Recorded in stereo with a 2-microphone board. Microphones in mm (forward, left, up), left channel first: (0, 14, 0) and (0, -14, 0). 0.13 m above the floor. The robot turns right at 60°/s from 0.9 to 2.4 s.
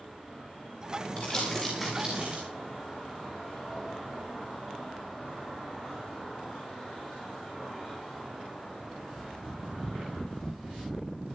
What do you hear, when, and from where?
1.2 s crumpling: 30° left (ahead or behind), 9.5 m; by 2.4 s 45° right (ahead or behind), 9.5 m